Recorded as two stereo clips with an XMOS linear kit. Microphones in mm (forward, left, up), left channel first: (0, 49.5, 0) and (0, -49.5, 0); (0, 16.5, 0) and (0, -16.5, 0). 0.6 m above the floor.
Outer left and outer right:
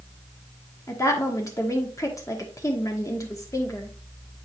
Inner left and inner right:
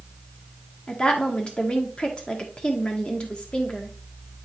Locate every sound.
0.9 s a woman speaking: 30° left (ahead or behind), 1.3 m